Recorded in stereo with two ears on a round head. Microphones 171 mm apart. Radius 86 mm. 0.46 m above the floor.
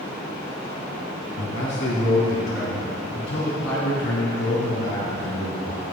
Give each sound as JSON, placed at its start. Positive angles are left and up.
{"t": 1.4, "sound": "a man speaking", "side_deg": 75, "distance_m": 3.0}